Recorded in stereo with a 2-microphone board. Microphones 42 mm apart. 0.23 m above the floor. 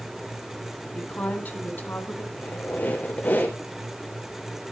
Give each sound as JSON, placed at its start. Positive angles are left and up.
{"t": 0.9, "sound": "a woman speaking", "side_deg": 40, "distance_m": 2.0}
{"t": 2.3, "sound": "a squeak", "side_deg": 50, "distance_m": 2.5}